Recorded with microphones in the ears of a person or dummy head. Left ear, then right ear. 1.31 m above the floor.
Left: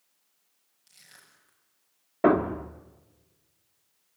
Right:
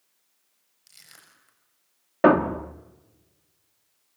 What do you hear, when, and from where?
0.9 s crushing: 20° right (ahead or behind), 6.5 m
2.2 s a thud: 25° right (ahead or behind), 0.9 m